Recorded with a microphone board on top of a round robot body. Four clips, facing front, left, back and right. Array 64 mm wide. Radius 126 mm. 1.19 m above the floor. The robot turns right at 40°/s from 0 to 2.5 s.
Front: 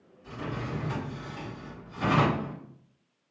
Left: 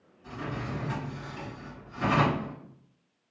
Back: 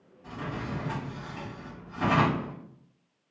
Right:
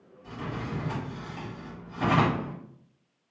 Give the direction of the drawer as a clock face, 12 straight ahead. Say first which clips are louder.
Even, even; 7 o'clock.